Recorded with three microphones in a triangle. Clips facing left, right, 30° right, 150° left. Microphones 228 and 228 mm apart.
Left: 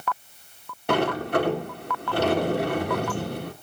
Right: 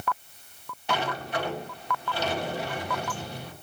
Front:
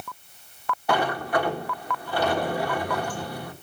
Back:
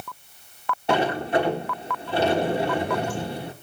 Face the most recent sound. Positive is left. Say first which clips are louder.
# left 8 dB, back 3 dB
turn(degrees=90)